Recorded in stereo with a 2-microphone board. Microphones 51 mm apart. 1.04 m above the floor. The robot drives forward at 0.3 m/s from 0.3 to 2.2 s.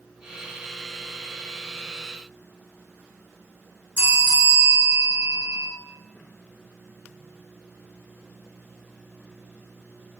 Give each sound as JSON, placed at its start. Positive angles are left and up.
{"t": 4.0, "sound": "a bell", "side_deg": -40, "distance_m": 1.0}